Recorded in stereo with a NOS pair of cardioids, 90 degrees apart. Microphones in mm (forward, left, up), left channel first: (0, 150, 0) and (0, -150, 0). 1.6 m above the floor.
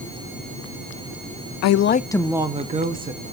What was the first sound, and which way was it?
A woman speaking, 65° left.